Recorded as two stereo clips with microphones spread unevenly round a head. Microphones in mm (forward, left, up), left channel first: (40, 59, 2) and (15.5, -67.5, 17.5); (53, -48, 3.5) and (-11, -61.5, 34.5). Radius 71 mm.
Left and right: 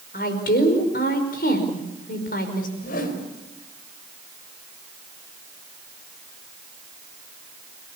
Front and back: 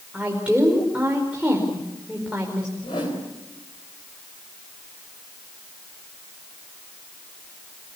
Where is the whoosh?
65° left, 3.5 m.